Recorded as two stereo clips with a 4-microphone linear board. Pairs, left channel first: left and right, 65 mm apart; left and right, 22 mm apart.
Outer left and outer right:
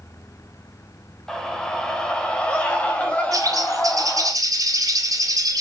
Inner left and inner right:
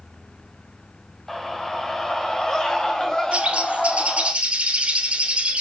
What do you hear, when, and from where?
1.3 s a scream: 10° left (ahead or behind), 3.5 m; by 4.3 s 25° left (ahead or behind), 5.5 m
3.3 s a bird: 60° right (ahead or behind), 3 m